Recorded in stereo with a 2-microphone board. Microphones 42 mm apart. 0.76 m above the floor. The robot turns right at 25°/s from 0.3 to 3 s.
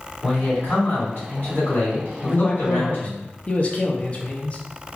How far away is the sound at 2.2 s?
About 0.5 m.